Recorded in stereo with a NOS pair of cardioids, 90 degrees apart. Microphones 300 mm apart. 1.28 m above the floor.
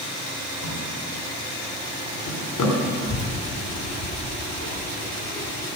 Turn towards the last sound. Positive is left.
turn(degrees=50)